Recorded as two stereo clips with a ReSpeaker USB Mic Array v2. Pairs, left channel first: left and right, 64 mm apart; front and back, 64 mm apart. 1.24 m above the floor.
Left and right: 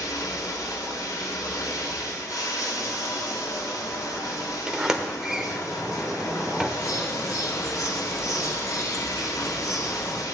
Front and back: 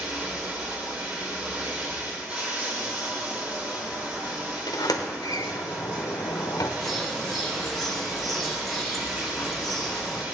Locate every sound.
0.0 s running water: 110° left, 2 m
4.7 s a sliding door: 5° right, 0.9 m
6.8 s a bird: 90° left, 1.6 m